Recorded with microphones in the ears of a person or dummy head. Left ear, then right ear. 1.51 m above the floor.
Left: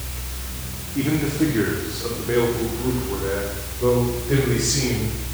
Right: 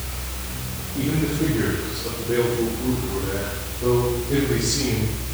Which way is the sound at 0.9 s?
60° left (ahead or behind).